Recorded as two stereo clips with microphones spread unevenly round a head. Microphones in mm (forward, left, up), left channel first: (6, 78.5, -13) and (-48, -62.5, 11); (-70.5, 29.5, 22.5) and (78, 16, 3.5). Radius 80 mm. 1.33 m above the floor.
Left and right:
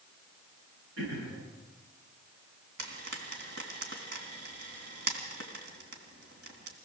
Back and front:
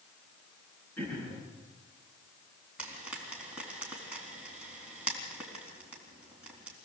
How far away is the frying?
About 3.5 m.